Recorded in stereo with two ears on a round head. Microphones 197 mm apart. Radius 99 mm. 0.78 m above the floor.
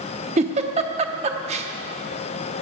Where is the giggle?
30° right (ahead or behind), 0.7 m.